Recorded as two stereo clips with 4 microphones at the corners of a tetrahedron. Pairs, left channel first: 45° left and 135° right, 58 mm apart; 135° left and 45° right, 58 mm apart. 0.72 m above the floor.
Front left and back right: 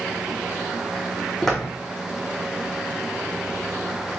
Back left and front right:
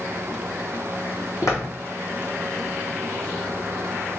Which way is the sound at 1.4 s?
130° left.